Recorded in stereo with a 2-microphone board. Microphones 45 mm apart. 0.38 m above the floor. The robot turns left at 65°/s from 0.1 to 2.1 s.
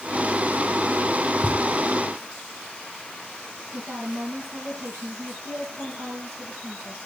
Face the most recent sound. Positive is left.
turn(degrees=-75)  # may be behind; listen again after turning